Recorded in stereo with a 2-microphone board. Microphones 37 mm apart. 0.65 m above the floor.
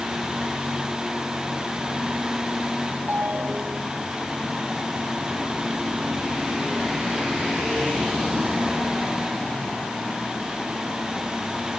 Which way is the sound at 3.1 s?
60° right (ahead or behind).